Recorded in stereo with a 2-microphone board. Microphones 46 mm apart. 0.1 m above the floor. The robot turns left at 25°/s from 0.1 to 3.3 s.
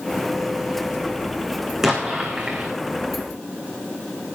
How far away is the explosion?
About 2 m.